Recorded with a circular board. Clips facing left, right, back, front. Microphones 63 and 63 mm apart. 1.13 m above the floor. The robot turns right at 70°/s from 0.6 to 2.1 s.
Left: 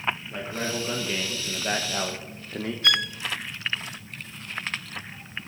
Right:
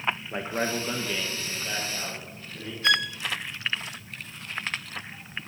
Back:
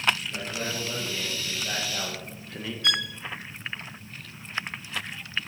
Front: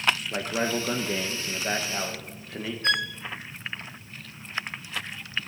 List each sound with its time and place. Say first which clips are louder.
0.3 s a man speaking: right 2 dB, front 5 dB; 30° right, 1.2 m; by 2.7 s 75° left, 1.2 m
2.8 s a violin: right 2 dB, front 2 dB; 35° right, 1.3 m